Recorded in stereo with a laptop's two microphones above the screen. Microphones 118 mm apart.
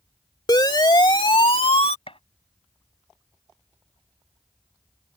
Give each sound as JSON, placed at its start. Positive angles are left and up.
{"t": 0.5, "sound": "a siren", "side_deg": 40}
{"t": 2.1, "sound": "a gunshot", "side_deg": 55}